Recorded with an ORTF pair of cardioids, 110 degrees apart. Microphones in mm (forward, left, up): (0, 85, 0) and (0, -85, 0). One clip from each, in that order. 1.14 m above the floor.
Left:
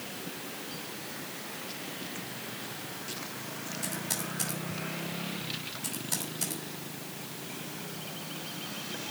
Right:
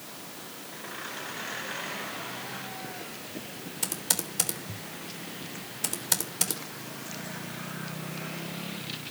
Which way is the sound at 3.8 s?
65° right.